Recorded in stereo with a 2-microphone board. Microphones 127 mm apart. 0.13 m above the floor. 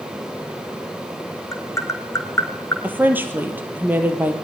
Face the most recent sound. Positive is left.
turn(degrees=-15)  # may be behind; listen again after turning